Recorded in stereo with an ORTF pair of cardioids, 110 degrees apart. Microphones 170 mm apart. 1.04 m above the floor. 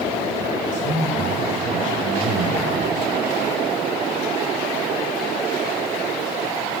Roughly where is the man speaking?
Ahead right.